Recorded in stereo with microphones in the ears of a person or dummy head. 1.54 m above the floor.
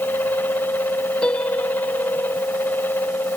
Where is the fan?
15° left (ahead or behind).